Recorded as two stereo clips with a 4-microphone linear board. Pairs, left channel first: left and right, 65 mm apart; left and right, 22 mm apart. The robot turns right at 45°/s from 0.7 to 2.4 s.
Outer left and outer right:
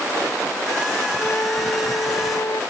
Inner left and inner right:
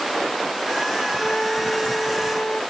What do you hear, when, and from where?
1.2 s a flute: 35° left; by 2.6 s 90° left